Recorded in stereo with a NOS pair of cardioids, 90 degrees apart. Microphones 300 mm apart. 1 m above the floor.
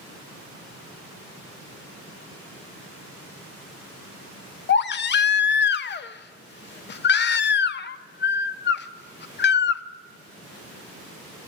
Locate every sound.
4.7 s a baby crying: 40° left, 0.7 m